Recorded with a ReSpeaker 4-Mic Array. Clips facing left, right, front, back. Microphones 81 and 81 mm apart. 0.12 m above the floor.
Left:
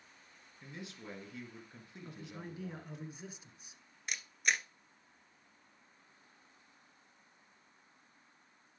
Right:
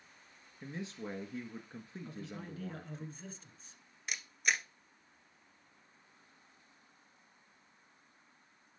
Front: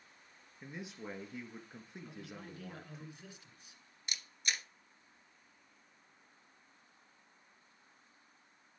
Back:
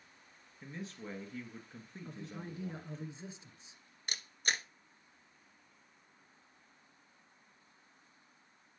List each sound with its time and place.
0.6 s a man speaking: 65° right, 1.4 m
2.0 s a man speaking: 150° left, 1.3 m
4.1 s a camera shutter: straight behind, 0.8 m